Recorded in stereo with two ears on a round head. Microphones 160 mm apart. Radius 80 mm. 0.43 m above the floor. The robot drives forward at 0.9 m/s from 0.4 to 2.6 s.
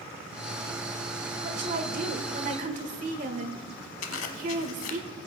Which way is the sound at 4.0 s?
85° left.